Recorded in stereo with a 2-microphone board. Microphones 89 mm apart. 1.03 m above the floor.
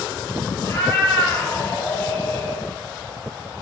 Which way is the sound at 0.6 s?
30° left (ahead or behind).